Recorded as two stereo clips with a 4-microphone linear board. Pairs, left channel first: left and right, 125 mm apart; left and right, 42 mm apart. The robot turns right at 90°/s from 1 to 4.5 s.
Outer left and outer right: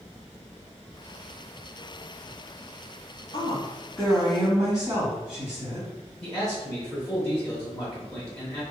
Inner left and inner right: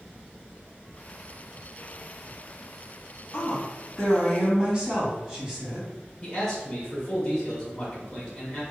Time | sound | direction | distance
3.3 | a woman speaking | 115° left | 2.0 m
6.2 | a man speaking | 10° left (ahead or behind) | 0.9 m